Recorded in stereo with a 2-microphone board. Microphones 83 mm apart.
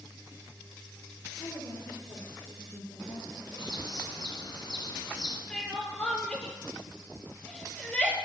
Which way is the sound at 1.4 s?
60° left (ahead or behind).